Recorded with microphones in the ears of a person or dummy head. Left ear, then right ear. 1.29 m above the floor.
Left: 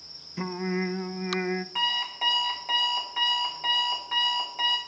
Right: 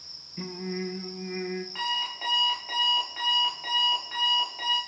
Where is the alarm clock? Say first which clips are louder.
Left 2 dB; 20° left (ahead or behind), 3 m.